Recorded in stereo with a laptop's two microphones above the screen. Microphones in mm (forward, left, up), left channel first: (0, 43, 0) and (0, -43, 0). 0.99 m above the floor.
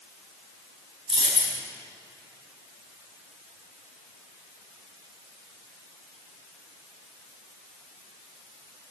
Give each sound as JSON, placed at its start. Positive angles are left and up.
{"t": 1.1, "sound": "a dropped coin", "side_deg": -85, "distance_m": 3.5}